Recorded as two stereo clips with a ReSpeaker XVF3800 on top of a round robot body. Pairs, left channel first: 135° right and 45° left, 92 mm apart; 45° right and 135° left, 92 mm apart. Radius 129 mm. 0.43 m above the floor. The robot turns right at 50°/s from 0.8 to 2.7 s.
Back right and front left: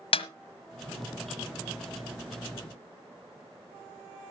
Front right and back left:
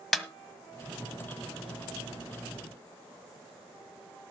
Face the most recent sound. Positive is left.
turn(degrees=-40)